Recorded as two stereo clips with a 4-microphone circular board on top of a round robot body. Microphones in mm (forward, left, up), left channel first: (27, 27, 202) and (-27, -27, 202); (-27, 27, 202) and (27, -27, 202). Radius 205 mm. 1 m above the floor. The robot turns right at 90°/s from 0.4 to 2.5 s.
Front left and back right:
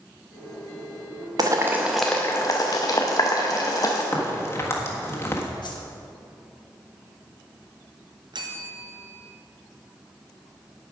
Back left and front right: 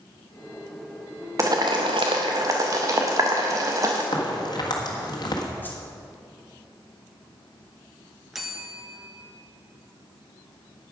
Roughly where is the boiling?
Right.